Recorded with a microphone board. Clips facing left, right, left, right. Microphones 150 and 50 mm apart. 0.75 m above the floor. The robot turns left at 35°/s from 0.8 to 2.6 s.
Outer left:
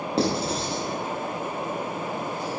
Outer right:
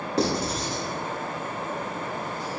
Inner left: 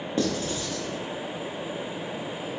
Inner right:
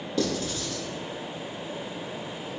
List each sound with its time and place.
0.2 s writing: 30° left (ahead or behind), 0.9 m; by 0.8 s 25° left (ahead or behind), 0.9 m